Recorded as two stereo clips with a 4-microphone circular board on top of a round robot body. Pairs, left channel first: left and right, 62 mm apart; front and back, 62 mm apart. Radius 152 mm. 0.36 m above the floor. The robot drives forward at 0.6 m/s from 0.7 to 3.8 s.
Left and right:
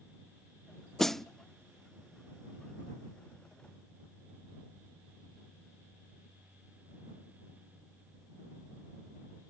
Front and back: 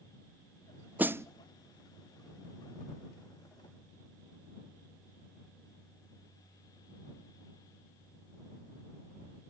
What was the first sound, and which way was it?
A snare drum, 165° left.